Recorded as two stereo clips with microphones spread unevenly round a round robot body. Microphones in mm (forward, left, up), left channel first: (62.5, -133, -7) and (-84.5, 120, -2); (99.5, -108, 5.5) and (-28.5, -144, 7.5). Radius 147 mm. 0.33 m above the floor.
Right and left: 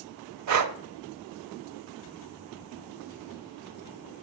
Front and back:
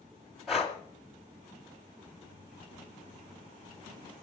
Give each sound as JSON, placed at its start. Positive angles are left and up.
{"t": 0.5, "sound": "breathing", "azimuth_deg": 105, "distance_m": 0.7}